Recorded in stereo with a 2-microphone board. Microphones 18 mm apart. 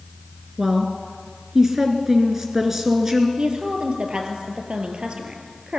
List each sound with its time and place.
0.6 s a woman speaking: 25° right (ahead or behind), 1.8 m
3.4 s a woman speaking: 50° right (ahead or behind), 3.5 m